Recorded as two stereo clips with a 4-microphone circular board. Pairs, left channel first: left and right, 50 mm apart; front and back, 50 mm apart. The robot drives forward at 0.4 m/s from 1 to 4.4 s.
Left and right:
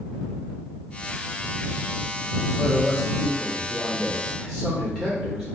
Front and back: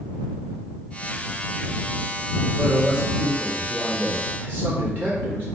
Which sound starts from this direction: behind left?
A man speaking, at 2.6 s.